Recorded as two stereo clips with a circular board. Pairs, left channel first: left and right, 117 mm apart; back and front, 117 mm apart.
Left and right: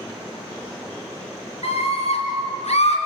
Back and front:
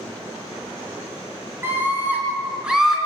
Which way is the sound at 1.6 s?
70° left.